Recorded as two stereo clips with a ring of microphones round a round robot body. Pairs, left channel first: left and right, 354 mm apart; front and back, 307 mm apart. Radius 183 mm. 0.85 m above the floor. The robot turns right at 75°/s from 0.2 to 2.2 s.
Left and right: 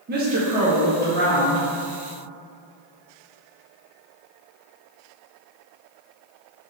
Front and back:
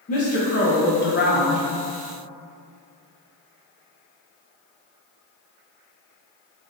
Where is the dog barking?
No dog barking in this recording.